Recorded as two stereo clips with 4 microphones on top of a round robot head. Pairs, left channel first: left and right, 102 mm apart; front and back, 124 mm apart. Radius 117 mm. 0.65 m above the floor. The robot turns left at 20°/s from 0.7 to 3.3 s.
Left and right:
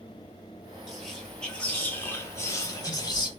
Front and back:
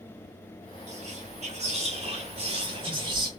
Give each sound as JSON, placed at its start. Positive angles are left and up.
{"t": 0.9, "sound": "whispering", "azimuth_deg": 180, "distance_m": 1.3}